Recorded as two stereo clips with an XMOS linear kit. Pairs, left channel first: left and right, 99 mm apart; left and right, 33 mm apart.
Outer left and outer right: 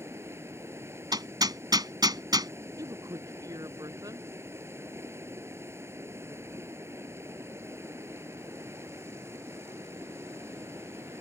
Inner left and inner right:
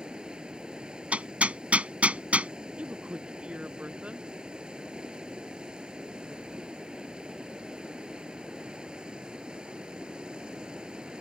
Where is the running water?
25° right (ahead or behind).